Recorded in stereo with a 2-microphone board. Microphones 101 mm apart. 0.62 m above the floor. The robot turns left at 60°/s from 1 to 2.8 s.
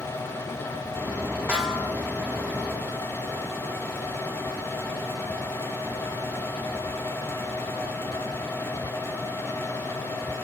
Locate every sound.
1.5 s a snare drum: 10° right (ahead or behind), 8 m; by 1.9 s 15° left (ahead or behind), 8 m